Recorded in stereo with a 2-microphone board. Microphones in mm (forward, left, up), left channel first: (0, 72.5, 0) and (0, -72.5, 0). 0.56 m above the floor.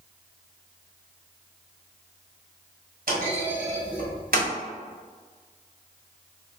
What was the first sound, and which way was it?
A clunk, 70° right (ahead or behind).